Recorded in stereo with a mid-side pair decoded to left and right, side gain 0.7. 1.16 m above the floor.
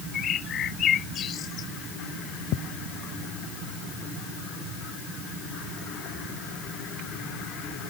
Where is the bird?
40° left.